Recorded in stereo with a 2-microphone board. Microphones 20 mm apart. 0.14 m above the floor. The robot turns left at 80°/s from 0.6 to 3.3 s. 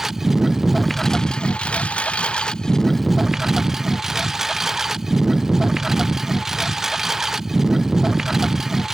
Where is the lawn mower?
165° right; by 8.9 s 20° right.